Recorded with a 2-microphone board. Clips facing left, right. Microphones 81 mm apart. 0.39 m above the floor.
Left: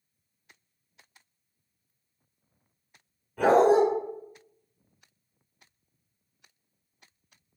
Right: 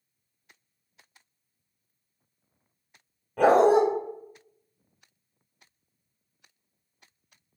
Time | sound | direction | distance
3.4 | a dog barking | 70° right (ahead or behind) | 0.7 m